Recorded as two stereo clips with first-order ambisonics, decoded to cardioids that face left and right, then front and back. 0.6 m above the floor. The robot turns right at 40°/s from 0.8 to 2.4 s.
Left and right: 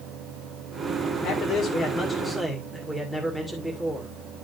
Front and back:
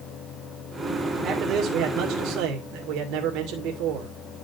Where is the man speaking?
130° left, 2 m; by 4.2 s straight behind, 2 m.